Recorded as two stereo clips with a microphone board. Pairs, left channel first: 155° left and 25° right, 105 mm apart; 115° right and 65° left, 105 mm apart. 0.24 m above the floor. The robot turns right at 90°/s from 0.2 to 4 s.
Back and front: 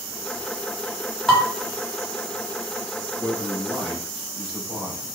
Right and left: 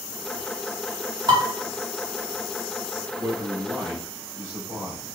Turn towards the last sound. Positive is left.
turn(degrees=60)